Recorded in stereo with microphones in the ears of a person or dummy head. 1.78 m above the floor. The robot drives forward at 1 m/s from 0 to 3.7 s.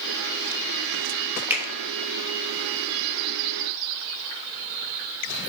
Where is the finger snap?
10° right (ahead or behind), 2.5 m.